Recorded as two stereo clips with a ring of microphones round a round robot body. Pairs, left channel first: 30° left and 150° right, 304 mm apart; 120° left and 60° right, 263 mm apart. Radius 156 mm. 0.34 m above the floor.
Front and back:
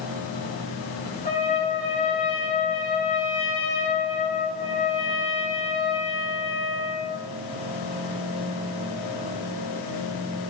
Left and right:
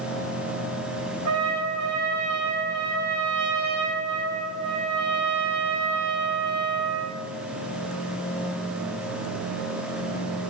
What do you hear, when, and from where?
1.2 s a trumpet: 35° right, 7 m